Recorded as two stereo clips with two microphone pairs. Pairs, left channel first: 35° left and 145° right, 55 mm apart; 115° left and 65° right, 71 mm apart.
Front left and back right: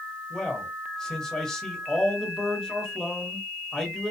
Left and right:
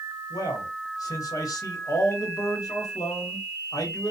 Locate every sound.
0.3 s a man speaking: 105° left, 1.1 m